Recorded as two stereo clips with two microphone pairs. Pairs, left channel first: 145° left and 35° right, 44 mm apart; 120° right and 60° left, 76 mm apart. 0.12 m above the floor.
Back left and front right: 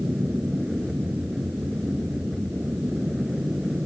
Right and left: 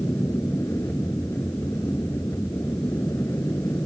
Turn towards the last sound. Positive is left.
turn(degrees=-115)